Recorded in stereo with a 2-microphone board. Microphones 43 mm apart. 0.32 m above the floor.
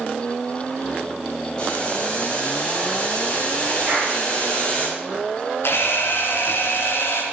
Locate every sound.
1.6 s boiling: 20° left (ahead or behind), 7 m
3.9 s a clap: 40° right (ahead or behind), 7.5 m
5.6 s a camera shutter: 65° left (ahead or behind), 4.5 m